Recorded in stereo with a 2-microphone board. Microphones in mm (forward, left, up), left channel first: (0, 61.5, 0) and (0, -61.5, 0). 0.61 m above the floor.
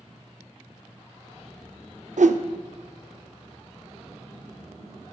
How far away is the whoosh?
About 0.5 m.